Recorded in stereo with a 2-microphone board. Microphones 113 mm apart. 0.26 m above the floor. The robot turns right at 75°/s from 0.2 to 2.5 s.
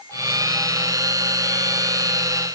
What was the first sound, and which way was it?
Only background noise.